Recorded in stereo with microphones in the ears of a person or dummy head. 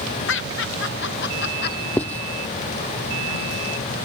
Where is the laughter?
65° left (ahead or behind); by 1.9 s 45° left (ahead or behind).